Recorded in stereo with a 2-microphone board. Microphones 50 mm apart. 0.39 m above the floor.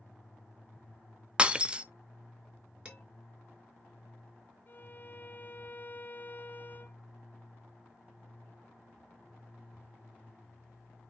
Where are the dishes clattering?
25° right (ahead or behind), 4 m.